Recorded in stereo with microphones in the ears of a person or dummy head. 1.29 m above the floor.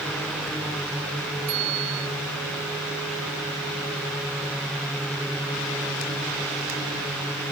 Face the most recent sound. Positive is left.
turn(degrees=-85)